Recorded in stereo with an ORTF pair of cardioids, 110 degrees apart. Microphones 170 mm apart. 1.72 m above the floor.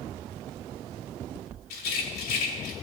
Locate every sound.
1.7 s a rattle: 70° left, 2.5 m